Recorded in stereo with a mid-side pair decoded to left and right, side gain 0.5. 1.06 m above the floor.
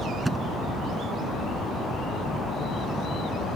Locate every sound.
0.2 s a thud: 15° right